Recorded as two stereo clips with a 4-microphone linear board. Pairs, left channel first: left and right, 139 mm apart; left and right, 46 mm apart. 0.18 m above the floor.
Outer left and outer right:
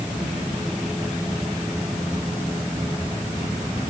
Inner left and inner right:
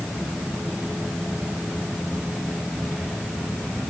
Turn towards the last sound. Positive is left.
No sound to turn to.